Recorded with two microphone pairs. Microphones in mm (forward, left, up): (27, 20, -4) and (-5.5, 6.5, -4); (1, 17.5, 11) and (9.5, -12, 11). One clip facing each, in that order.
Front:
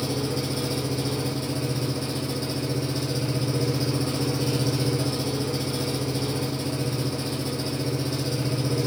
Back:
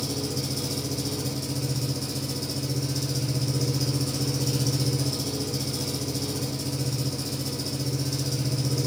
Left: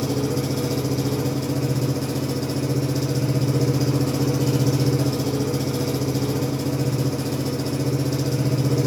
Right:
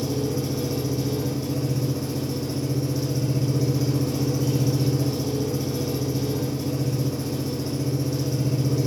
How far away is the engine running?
About 3 m.